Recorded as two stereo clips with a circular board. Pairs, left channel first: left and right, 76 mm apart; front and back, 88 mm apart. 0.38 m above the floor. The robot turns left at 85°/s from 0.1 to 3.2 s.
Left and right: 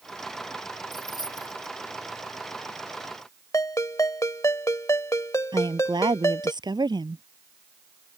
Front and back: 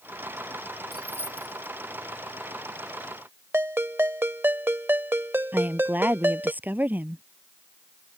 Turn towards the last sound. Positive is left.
turn(degrees=-110)